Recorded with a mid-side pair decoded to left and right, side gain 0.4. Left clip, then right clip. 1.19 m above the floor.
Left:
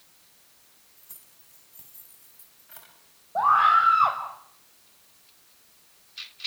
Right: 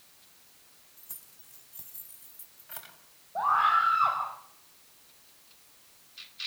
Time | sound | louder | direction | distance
1.0 | keys jangling | right 2 dB | 25° right | 7 m
3.4 | a scream | left 5 dB | 50° left | 6 m